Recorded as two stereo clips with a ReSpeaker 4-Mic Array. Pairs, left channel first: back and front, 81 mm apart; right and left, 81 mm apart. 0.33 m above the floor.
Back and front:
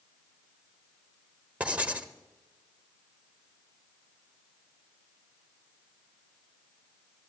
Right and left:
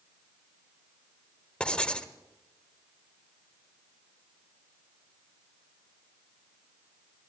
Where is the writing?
40° right, 0.7 m.